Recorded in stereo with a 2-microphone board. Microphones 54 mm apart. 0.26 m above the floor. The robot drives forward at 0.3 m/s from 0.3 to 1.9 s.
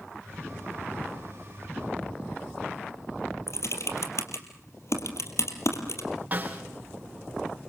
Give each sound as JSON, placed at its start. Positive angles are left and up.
{"t": 3.5, "sound": "typing on a keyboard", "side_deg": 65, "distance_m": 3.5}
{"t": 6.3, "sound": "a snare drum", "side_deg": -35, "distance_m": 5.5}